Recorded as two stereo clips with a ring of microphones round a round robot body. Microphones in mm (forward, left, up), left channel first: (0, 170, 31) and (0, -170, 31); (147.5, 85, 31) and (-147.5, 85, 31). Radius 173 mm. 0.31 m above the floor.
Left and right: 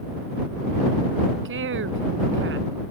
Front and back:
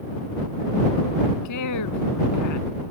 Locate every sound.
1.4 s a woman speaking: 35° right